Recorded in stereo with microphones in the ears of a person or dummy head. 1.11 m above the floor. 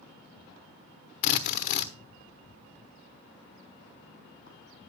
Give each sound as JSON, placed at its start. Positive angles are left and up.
{"t": 1.2, "sound": "a drill", "side_deg": 50, "distance_m": 0.9}